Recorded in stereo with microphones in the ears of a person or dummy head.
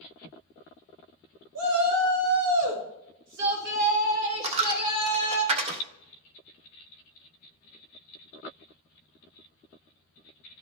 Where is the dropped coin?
35° right (ahead or behind), 0.7 m.